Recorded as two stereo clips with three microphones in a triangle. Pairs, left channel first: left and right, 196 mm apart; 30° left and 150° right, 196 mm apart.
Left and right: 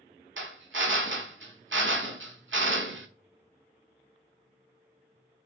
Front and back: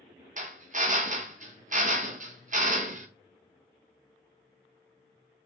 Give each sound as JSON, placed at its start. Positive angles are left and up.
{"t": 0.4, "sound": "a drill", "azimuth_deg": -100, "distance_m": 0.5}